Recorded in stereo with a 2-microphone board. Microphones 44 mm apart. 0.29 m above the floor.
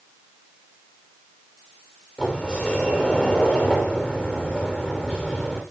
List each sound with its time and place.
2.2 s a sliding door: 30° left (ahead or behind), 6 m